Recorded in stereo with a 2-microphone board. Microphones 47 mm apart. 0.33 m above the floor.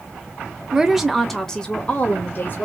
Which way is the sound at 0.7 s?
15° right (ahead or behind).